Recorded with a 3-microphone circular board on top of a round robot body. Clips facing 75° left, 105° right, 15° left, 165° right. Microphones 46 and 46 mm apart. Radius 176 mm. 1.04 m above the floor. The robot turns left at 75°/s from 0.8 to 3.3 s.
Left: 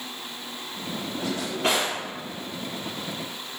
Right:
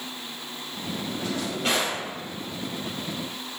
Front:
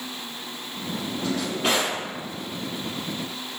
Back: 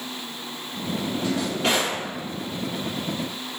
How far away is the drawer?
About 0.6 m.